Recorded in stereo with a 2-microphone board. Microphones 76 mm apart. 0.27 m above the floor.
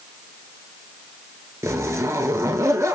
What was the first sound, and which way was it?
A zipper, 40° right (ahead or behind).